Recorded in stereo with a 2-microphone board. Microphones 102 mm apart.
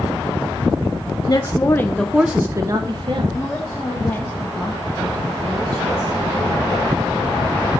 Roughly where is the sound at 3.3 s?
Left.